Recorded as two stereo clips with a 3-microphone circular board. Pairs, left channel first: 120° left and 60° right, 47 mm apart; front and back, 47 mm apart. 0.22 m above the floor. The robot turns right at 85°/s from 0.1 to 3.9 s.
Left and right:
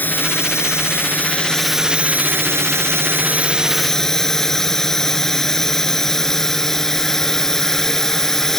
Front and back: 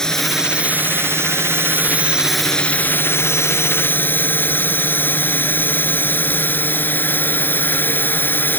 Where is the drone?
75° left; by 8.6 s 40° left.